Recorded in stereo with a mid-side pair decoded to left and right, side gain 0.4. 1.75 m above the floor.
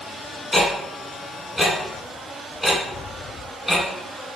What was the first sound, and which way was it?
Ticking, 10° left.